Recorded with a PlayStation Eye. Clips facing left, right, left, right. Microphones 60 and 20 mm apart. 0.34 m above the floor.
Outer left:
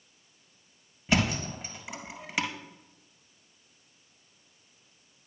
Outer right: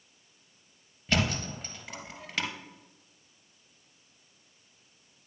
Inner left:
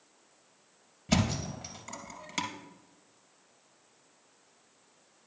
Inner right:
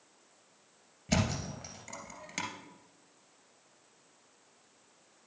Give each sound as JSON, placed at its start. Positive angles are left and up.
{"t": 1.1, "sound": "a thud", "side_deg": 10, "distance_m": 2.0}